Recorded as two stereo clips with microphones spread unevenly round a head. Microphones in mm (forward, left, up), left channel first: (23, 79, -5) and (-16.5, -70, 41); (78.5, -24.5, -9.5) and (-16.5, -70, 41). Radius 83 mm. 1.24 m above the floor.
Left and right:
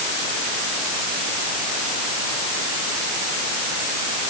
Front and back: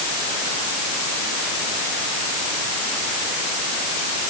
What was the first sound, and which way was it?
Only background noise.